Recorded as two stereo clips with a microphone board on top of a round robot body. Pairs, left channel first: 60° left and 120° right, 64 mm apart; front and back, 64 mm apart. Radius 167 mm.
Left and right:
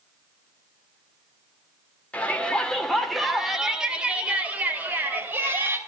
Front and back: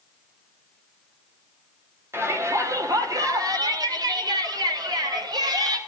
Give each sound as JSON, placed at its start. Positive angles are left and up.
{"t": 2.1, "sound": "a shout", "azimuth_deg": 130, "distance_m": 2.5}